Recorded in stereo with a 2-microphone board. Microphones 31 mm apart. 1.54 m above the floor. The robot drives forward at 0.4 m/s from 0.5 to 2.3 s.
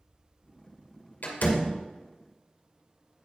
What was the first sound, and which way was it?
A door slam, 70° left (ahead or behind).